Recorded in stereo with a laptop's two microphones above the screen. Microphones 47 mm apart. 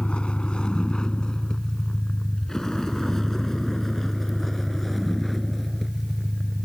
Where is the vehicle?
25° left (ahead or behind); by 6.7 s centre (ahead or behind).